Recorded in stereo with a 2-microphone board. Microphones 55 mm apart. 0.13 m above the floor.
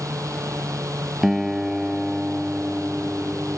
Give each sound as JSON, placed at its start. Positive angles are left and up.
{"t": 0.0, "sound": "a drone", "side_deg": -70}
{"t": 1.2, "sound": "a guitar", "side_deg": -5}